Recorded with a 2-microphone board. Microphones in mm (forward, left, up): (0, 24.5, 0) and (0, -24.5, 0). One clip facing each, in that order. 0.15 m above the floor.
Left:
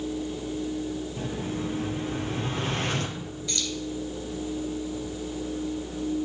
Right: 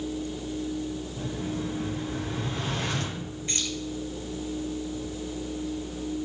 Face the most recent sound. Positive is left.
turn(degrees=-35)  # may be behind; listen again after turning